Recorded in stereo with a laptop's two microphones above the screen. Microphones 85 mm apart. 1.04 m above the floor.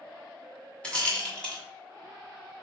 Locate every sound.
0.8 s a rattle: 10° left (ahead or behind), 0.9 m